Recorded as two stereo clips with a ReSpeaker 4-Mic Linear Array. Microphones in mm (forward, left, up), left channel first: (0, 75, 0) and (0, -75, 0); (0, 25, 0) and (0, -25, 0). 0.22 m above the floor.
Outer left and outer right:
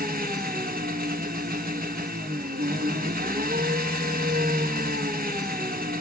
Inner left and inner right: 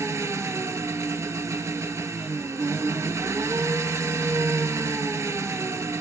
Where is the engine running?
85° right, 0.8 m.